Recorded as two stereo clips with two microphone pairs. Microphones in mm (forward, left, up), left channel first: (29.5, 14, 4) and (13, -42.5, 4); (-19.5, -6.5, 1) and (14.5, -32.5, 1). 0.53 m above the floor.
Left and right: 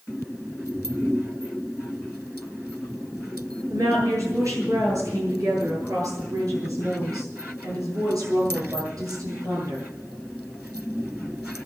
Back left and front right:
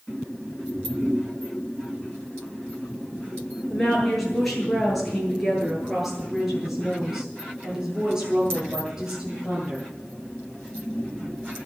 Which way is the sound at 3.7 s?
135° right.